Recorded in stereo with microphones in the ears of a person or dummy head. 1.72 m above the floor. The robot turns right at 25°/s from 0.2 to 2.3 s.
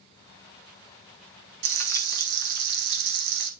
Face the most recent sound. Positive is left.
turn(degrees=-60)  # may be behind; listen again after turning